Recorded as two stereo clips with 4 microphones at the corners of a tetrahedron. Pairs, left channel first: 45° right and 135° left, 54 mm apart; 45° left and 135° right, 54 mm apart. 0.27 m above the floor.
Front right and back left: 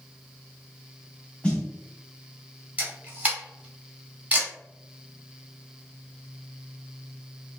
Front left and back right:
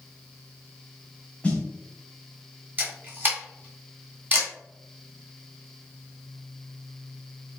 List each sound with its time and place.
1.4 s a snare drum: straight ahead, 0.9 m
2.8 s a camera shutter: 175° right, 1.1 m